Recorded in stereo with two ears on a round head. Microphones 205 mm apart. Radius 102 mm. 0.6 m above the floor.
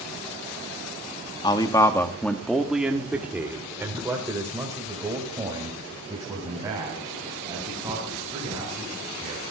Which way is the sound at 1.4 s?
20° left (ahead or behind).